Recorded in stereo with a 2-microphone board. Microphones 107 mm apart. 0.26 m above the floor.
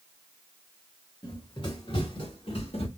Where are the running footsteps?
45° left (ahead or behind), 1.9 m; by 2.9 s 70° left (ahead or behind), 2 m.